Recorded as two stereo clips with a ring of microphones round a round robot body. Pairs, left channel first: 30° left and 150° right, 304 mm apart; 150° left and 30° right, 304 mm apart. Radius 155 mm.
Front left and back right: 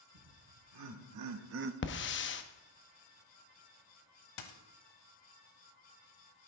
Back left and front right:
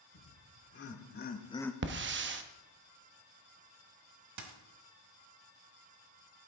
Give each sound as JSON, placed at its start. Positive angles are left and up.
{"t": 0.1, "sound": "laughter", "azimuth_deg": -160, "distance_m": 2.5}
{"t": 1.8, "sound": "a hiss", "azimuth_deg": 0, "distance_m": 0.8}
{"t": 4.4, "sound": "a dropped coin", "azimuth_deg": 5, "distance_m": 1.2}